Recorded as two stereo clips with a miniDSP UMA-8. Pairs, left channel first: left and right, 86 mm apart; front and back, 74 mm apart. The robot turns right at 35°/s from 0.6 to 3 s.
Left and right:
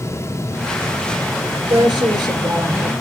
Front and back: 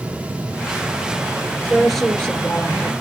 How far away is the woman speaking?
About 2.5 m.